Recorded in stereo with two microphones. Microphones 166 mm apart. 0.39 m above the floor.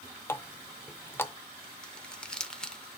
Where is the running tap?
15° left (ahead or behind), 0.5 m.